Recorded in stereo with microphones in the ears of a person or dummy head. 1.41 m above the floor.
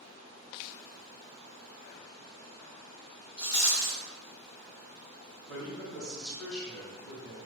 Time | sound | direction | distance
3.4 | a rattle | 45° left (ahead or behind) | 1.5 m
5.5 | a man speaking | 5° left (ahead or behind) | 1.8 m